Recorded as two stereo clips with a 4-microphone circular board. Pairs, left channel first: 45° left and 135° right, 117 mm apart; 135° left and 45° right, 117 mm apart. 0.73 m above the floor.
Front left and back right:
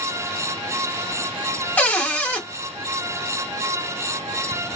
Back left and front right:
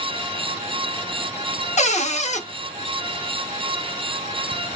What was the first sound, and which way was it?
A cupboard door, 120° left.